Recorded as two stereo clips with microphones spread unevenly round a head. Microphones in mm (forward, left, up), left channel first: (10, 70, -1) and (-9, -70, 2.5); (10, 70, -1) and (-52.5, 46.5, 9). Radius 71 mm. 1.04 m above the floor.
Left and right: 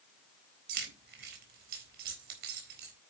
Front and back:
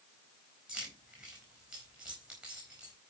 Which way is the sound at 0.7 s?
75° right.